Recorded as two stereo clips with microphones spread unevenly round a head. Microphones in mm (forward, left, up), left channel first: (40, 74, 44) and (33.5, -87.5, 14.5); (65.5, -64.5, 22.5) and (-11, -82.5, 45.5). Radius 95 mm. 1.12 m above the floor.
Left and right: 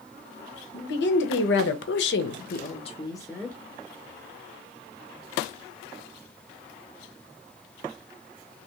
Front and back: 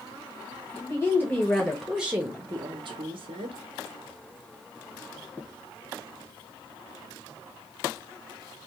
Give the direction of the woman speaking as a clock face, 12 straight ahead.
10 o'clock.